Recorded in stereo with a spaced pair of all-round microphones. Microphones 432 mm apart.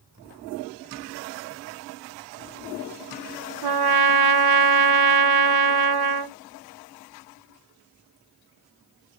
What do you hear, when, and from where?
3.6 s a trumpet: 60° right (ahead or behind), 0.5 m